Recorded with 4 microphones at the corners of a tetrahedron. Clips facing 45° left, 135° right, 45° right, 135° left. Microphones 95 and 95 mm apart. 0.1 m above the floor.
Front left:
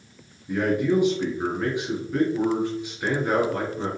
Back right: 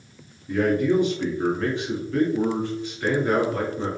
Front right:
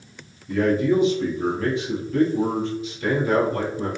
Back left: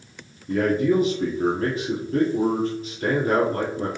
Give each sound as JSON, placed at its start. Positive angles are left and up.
{"t": 0.5, "sound": "a man speaking", "azimuth_deg": 115, "distance_m": 1.8}